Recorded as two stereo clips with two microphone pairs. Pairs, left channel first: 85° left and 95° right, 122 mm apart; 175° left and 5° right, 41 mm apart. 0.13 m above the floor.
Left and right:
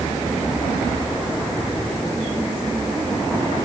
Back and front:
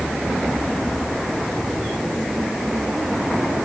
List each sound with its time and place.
Only background noise.